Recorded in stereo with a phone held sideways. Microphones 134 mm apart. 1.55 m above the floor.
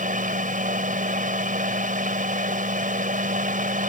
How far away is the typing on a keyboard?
I don't hear typing on a keyboard.